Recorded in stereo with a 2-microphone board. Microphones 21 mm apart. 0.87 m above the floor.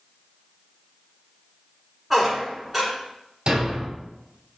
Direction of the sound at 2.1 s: 5° right (ahead or behind).